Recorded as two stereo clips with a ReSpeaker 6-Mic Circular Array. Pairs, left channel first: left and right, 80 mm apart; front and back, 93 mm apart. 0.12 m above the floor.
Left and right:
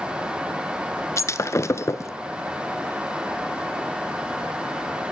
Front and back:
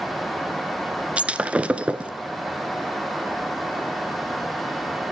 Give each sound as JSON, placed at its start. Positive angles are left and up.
{"t": 1.2, "sound": "breaking glass", "azimuth_deg": 110, "distance_m": 0.9}